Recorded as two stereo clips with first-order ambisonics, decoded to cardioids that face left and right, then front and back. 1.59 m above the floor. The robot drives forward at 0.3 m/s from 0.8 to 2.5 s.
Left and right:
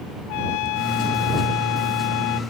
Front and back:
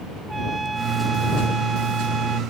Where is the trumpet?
100° left.